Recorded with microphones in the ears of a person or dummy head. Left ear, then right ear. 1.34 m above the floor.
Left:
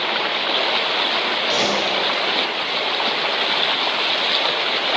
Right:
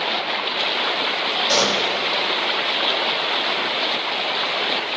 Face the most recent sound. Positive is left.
turn(degrees=-70)  # may be behind; listen again after turning